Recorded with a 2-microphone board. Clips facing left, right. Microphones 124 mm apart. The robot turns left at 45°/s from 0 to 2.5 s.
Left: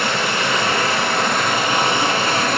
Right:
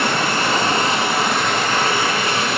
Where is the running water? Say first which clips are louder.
Right 1 dB; 115° right, 4 m; by 2.6 s 130° left, 4 m.